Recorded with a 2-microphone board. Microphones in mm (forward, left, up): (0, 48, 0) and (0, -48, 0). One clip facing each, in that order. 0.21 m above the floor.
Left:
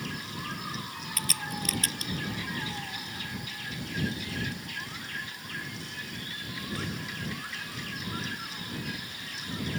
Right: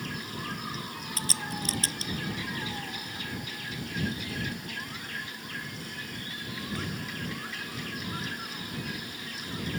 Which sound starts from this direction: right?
A crack, at 1.2 s.